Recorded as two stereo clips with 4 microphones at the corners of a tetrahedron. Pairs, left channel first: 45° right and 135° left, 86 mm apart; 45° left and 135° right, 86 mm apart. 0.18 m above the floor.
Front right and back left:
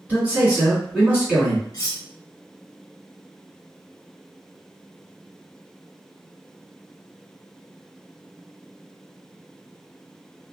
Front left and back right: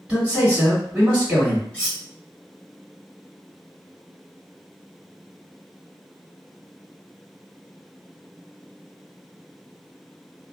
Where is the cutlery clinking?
25° right, 1.3 m.